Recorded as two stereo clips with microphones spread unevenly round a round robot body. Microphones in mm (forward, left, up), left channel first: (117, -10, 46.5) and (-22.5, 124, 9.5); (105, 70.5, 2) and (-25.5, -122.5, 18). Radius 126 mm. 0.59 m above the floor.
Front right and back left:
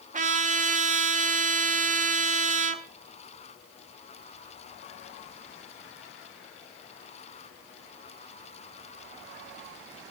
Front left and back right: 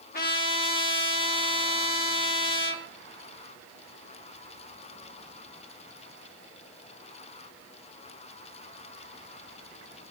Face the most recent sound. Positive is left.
turn(degrees=100)